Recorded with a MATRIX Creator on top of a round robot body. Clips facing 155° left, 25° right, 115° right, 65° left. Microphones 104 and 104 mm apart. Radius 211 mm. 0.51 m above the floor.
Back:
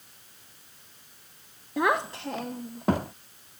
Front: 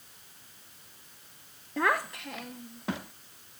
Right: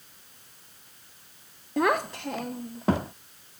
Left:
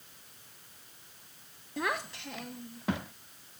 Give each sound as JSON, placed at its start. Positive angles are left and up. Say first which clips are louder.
{"t": 1.8, "sound": "a child speaking", "louder": "back 3 dB, right 10 dB", "azimuth_deg": -125}